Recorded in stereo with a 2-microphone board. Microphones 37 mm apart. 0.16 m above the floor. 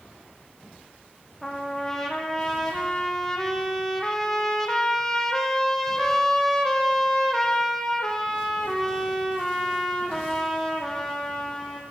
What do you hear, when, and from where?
1.4 s a trumpet: 15° left (ahead or behind), 3.5 m